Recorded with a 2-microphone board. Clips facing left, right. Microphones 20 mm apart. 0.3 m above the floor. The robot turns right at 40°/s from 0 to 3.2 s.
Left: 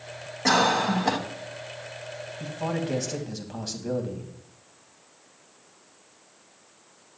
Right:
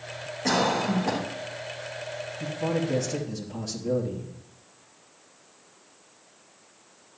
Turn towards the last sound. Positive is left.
turn(degrees=130)